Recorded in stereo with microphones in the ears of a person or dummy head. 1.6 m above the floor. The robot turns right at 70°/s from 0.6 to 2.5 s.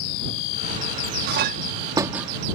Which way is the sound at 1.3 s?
60° right (ahead or behind).